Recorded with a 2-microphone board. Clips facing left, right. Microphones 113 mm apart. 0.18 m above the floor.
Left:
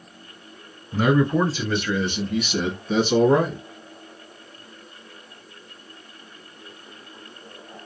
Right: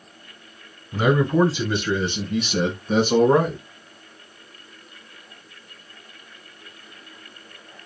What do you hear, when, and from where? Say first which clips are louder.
0.9 s a man speaking: even; 5° right (ahead or behind), 1.8 m; by 3.6 s 45° right (ahead or behind), 1.6 m